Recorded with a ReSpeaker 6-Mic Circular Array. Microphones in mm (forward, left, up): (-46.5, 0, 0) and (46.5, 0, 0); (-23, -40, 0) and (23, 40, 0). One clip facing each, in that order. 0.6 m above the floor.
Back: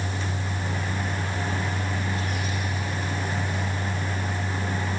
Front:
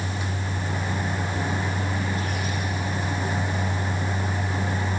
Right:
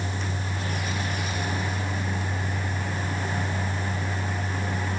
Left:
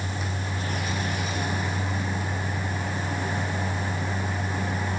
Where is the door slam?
No door slam in this recording.